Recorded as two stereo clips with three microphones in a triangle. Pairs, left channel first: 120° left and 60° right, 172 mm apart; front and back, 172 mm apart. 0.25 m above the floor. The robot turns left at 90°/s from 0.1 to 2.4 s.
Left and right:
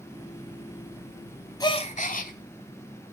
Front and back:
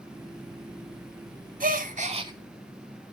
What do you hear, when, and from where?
1.6 s a gasp: 175° right, 0.7 m; by 2.3 s 120° left, 0.7 m